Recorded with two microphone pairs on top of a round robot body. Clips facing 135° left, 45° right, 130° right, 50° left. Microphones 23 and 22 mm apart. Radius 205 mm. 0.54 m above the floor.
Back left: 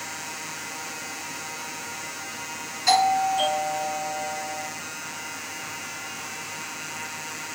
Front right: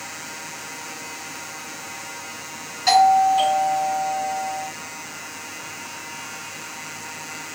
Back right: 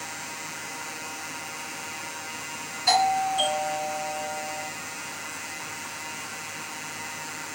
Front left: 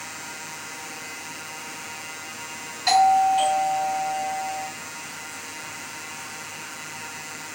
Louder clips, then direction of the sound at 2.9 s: Front right 6 dB, front left 5 dB; 5° left.